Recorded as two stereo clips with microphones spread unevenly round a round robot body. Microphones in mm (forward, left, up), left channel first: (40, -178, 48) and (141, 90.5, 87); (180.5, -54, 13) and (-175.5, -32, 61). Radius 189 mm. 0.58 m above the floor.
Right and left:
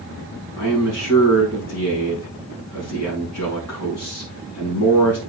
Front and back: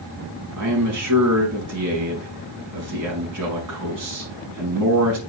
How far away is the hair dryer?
No hair dryer in this recording.